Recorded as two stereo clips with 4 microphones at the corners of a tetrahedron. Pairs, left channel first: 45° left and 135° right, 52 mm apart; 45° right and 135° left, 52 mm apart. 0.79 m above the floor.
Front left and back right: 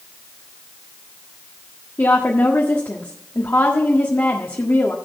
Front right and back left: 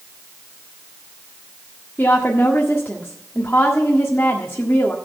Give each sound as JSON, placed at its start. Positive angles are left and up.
{"t": 2.0, "sound": "a woman speaking", "azimuth_deg": 10, "distance_m": 1.6}